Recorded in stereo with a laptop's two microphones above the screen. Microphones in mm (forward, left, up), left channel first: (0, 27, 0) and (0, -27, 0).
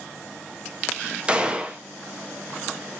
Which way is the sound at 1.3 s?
20° right (ahead or behind).